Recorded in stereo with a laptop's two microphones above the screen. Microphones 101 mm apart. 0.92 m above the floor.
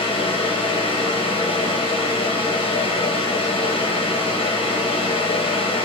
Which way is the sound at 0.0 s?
65° left (ahead or behind).